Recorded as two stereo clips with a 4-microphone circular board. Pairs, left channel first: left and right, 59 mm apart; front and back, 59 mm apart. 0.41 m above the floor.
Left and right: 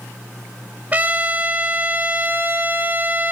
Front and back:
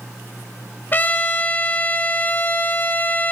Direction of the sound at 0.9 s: 40° right.